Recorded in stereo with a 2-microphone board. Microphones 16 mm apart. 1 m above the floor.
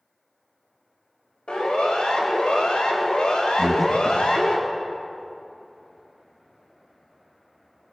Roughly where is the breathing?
Centre.